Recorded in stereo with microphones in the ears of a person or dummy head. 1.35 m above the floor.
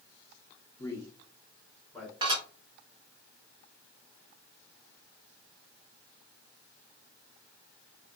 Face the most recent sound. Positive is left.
turn(degrees=-30)  # may be behind; listen again after turning